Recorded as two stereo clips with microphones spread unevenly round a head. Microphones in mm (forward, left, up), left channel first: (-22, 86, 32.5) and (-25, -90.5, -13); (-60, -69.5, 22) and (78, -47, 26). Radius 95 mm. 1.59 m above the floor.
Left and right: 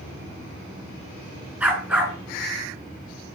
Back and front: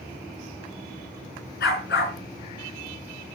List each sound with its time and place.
1.6 s a dog barking: straight behind, 5.5 m